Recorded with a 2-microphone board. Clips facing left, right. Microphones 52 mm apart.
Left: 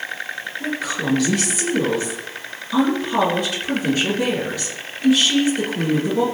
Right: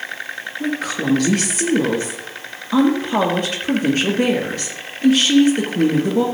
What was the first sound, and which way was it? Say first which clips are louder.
A woman speaking: right 3 dB; 50° right (ahead or behind).